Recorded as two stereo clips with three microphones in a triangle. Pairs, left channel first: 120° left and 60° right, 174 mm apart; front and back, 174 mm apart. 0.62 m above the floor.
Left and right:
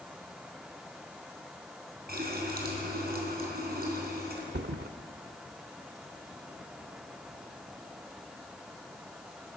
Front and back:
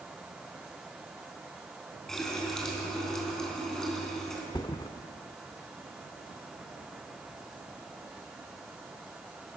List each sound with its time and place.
2.1 s a running tap: 90° right, 3.5 m
4.5 s a thud: 65° right, 0.7 m